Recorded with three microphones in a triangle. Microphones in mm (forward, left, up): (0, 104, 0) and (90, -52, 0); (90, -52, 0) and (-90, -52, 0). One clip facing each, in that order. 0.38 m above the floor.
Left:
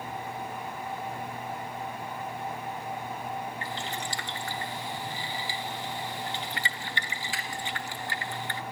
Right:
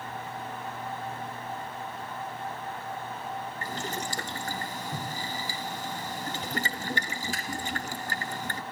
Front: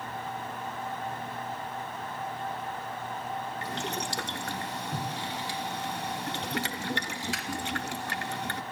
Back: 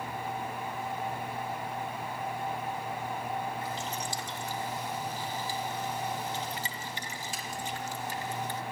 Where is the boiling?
15° right, 1.7 m.